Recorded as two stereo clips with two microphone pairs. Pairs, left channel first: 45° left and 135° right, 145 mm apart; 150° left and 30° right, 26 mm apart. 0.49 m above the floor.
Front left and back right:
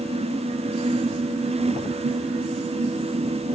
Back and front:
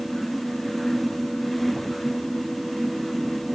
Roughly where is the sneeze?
I don't hear a sneeze.